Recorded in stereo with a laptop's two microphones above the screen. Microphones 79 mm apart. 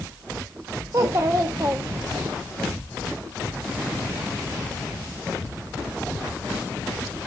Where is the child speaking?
40° right (ahead or behind), 0.5 m.